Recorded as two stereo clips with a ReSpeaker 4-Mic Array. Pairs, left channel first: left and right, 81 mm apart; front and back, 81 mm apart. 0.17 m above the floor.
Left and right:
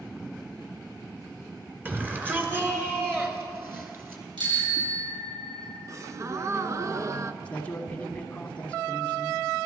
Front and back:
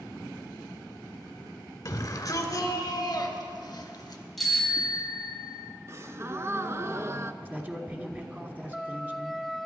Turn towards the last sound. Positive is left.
turn(degrees=145)